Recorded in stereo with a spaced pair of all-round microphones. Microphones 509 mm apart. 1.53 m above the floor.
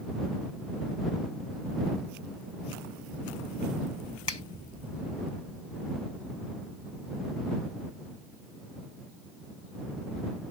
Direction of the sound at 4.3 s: 55° left (ahead or behind).